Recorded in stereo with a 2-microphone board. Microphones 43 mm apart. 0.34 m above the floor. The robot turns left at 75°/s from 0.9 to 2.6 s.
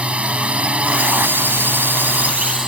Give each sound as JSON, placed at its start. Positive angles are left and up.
{"t": 0.0, "sound": "a drone", "azimuth_deg": -35}